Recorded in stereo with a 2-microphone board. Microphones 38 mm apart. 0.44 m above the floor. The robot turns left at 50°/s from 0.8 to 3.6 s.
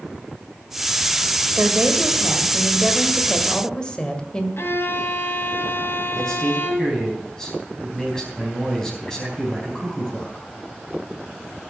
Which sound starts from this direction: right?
A woman speaking, at 1.6 s.